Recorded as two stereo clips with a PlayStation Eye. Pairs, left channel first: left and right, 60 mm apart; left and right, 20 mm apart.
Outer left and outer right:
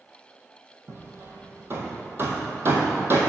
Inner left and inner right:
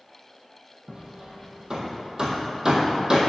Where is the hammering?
40° right (ahead or behind), 1.4 m.